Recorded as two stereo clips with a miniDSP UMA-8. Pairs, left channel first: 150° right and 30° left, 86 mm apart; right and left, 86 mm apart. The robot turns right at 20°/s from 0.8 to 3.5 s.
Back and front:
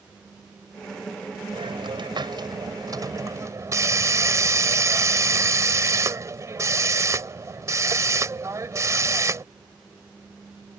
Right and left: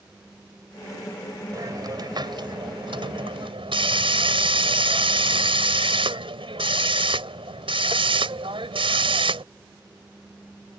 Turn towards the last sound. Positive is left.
turn(degrees=85)